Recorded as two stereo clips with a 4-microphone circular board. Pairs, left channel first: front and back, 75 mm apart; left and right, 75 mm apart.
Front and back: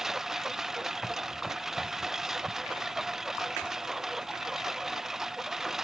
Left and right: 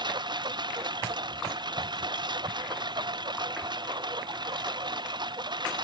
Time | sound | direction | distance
0.0 | a lawn mower | 95° right | ?